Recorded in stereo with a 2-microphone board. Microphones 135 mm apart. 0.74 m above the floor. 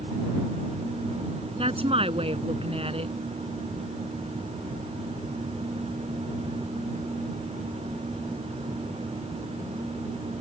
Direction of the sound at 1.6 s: 50° right (ahead or behind).